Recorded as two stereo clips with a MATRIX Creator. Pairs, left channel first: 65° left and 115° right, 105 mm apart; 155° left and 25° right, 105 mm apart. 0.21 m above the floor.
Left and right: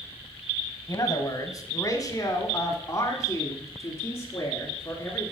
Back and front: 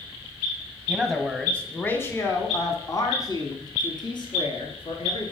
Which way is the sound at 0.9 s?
65° left.